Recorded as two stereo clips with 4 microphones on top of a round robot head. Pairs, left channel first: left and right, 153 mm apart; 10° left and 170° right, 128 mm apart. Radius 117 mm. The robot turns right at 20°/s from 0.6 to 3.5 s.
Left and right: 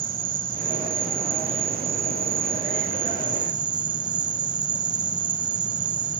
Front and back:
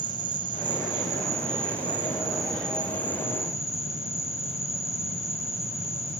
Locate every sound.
0.0 s an insect: 115° right, 1.4 m; by 6.2 s 60° right, 1.4 m